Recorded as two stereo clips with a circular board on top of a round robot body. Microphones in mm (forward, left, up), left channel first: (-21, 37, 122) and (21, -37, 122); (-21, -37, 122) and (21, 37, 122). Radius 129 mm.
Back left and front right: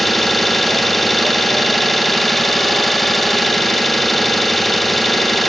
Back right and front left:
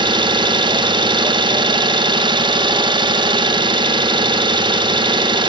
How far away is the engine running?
About 1.2 m.